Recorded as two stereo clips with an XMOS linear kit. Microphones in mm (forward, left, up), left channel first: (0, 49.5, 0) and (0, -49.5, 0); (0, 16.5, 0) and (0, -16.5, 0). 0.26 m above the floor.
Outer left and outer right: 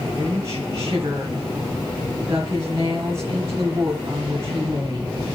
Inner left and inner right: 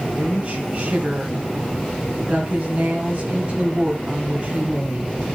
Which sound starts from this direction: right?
A woman speaking, at 0.1 s.